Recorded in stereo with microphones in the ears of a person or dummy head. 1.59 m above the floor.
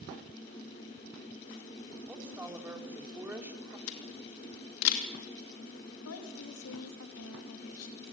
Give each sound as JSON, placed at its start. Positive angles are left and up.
{"t": 2.1, "sound": "a woman speaking", "side_deg": -15, "distance_m": 3.5}
{"t": 3.9, "sound": "a camera shutter", "side_deg": 85, "distance_m": 2.5}
{"t": 6.0, "sound": "a woman speaking", "side_deg": 90, "distance_m": 3.5}